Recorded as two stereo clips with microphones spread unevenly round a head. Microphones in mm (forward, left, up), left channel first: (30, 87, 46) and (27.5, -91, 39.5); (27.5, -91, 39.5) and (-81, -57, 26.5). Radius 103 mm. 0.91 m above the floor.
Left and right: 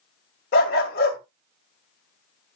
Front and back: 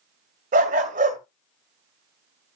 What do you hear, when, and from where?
0.5 s a dog barking: 135° left, 1.9 m